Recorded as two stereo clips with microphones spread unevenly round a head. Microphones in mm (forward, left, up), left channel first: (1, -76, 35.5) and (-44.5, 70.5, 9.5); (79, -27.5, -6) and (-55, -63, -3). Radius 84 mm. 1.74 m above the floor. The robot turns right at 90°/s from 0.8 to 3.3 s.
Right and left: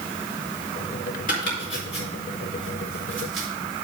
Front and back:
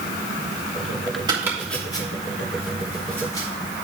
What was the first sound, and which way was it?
Chopping, 110° right.